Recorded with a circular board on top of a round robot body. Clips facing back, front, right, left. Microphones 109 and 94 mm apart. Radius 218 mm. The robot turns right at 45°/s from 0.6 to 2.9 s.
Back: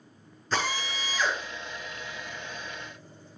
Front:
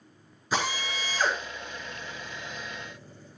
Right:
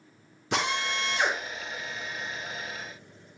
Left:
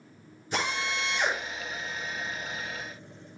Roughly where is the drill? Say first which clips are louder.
Even, right 2 dB; right.